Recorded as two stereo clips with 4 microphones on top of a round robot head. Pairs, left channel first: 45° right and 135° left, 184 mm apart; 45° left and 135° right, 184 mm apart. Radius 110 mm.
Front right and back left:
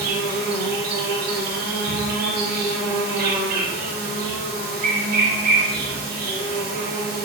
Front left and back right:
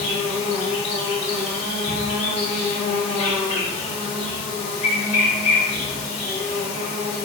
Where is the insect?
100° left, 4 m.